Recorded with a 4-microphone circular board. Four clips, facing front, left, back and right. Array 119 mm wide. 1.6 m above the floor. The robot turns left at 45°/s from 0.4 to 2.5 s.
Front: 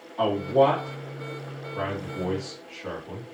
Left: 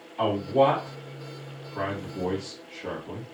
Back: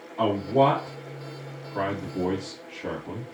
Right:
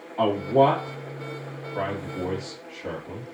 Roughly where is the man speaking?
Right.